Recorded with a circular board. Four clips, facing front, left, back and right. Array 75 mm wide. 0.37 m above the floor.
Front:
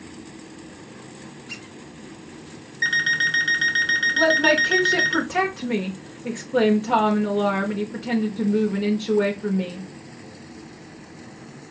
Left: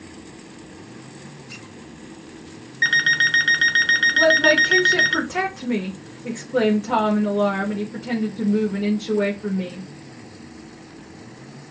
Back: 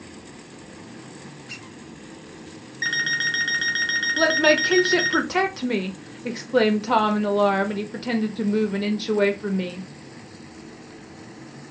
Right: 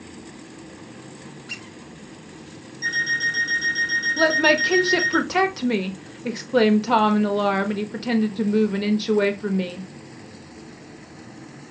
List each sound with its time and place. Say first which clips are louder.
1.5 s a squeak: right 1 dB, front 1 dB; 105° right, 3 m
2.8 s an alarm clock: left 5 dB, front 3 dB; 90° left, 0.9 m
4.2 s a woman speaking: left 1 dB, even; 120° right, 1.0 m